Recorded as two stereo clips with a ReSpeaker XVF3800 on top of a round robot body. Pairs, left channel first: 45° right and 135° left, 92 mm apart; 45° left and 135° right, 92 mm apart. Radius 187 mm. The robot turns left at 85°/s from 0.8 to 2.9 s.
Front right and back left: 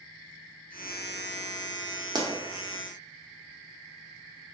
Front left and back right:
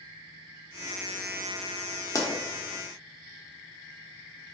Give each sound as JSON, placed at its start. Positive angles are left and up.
{"t": 2.1, "sound": "a pop", "azimuth_deg": 95, "distance_m": 1.0}